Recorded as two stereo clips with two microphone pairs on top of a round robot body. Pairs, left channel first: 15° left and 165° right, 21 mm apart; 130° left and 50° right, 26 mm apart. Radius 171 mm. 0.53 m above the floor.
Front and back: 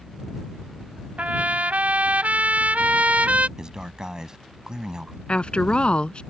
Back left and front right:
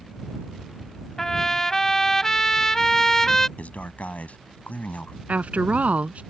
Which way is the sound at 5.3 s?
20° right.